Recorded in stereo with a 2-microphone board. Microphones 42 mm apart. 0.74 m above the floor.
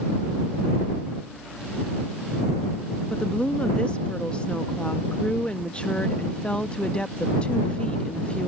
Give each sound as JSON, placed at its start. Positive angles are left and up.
{"t": 3.1, "sound": "a woman speaking", "side_deg": 30}